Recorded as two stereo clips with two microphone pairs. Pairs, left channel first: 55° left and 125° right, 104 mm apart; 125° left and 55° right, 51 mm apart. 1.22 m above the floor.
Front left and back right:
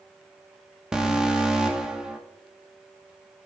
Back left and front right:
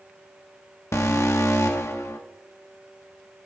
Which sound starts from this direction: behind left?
An alarm, at 0.9 s.